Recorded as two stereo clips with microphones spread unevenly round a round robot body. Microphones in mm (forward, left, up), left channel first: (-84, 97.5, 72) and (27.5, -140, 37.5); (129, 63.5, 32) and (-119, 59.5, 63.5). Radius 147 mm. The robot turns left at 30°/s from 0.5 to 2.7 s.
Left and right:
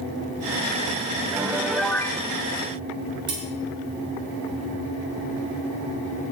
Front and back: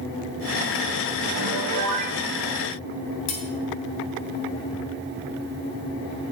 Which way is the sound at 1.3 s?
145° right.